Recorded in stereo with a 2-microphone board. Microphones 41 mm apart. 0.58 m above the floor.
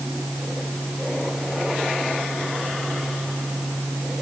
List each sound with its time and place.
Only background noise.